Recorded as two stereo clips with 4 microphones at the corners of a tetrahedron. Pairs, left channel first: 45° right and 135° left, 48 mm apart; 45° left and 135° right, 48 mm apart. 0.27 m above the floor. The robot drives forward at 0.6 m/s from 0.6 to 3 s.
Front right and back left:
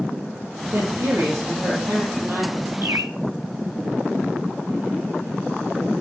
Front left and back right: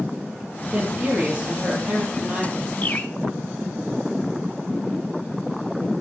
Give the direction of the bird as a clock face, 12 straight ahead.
9 o'clock.